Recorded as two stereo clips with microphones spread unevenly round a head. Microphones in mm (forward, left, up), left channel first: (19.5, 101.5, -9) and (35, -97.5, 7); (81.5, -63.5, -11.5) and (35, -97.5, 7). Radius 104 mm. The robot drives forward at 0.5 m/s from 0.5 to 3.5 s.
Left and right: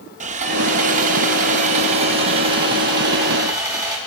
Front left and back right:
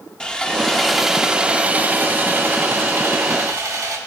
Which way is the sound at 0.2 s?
50° right.